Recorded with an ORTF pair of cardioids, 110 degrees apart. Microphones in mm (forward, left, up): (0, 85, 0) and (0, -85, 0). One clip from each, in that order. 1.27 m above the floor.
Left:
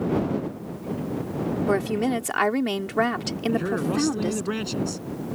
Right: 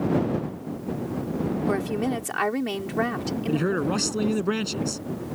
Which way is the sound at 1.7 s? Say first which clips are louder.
Left 4 dB; 25° left.